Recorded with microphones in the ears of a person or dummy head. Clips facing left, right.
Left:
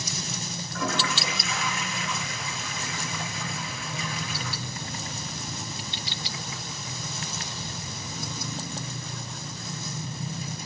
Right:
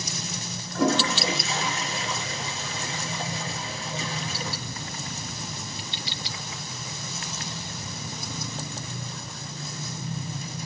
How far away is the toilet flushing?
About 0.8 m.